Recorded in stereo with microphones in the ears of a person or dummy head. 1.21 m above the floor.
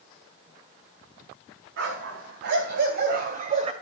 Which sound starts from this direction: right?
A dog barking, at 1.8 s.